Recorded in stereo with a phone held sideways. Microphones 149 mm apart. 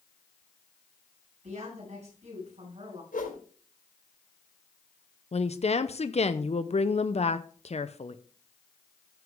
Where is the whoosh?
75° left (ahead or behind), 3.5 m.